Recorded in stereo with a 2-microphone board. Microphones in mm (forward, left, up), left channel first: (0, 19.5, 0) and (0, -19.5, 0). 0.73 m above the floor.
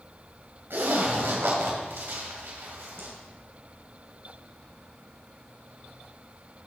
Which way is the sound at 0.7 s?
85° right.